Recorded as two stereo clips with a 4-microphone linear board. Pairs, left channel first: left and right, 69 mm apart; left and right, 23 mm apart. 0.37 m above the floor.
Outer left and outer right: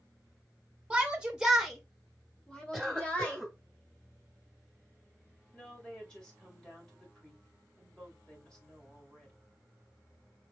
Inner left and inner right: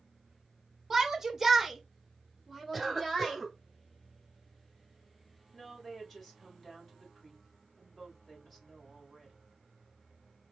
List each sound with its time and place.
0.9 s a shout: 10° right (ahead or behind), 1.3 m; by 3.4 s 20° left (ahead or behind), 1.4 m
2.7 s a cough: 5° right (ahead or behind), 1.4 m
5.5 s a woman speaking: 10° left (ahead or behind), 1.8 m